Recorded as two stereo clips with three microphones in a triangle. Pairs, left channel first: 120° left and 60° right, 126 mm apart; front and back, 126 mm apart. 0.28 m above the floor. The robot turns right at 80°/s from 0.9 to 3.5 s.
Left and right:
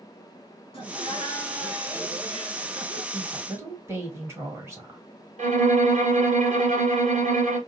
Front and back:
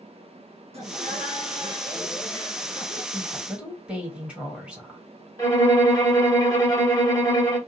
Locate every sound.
0.7 s laughter: 155° left, 2 m; by 3.0 s 35° right, 2 m
3.1 s a woman speaking: 135° right, 1.6 m; by 5.0 s 105° right, 1.6 m
5.4 s a violin: 65° right, 1.3 m